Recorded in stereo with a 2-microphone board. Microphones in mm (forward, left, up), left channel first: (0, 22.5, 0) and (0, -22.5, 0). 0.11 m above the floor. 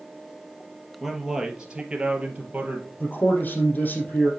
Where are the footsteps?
No footsteps in this recording.